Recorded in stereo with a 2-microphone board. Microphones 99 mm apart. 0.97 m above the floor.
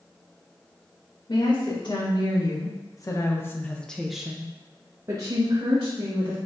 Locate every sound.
1.3 s a woman speaking: 60° left (ahead or behind), 1.5 m; by 6.4 s 55° right (ahead or behind), 1.3 m